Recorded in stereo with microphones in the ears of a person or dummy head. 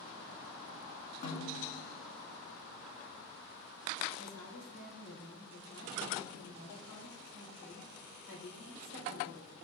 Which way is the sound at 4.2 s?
80° left.